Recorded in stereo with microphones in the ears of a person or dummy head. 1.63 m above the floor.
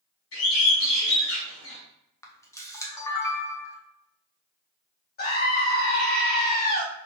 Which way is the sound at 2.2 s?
20° left (ahead or behind).